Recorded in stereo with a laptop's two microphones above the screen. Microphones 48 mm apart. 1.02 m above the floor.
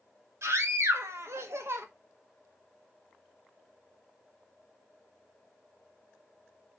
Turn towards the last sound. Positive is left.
turn(degrees=-60)  # may be behind; listen again after turning